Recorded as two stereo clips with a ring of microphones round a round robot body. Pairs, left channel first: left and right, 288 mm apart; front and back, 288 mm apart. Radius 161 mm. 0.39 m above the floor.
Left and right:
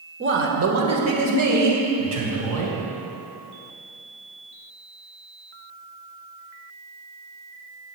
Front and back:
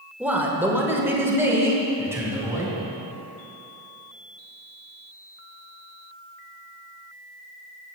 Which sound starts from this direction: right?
A man speaking, at 0.2 s.